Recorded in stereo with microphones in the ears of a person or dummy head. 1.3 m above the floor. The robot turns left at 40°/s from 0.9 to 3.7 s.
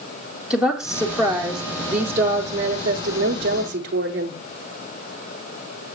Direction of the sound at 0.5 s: 5° right.